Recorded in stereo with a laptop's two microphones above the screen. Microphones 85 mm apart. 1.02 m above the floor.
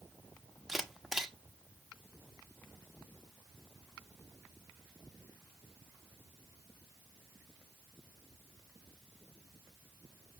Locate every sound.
0.7 s a camera shutter: 5° right (ahead or behind), 1.2 m